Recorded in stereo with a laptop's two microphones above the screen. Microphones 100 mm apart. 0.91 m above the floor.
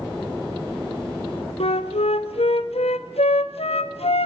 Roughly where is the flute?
Left.